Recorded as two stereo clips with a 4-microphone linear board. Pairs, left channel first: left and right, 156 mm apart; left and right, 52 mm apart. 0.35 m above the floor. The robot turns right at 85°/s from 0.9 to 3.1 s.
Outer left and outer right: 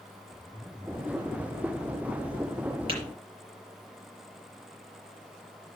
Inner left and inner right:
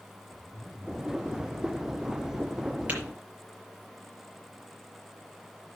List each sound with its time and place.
0.3 s a zipper: 5° right, 2.0 m; by 3.1 s straight behind, 2.0 m
2.9 s tapping: 35° right (ahead or behind), 5.5 m; by 3.0 s 30° right (ahead or behind), 5.5 m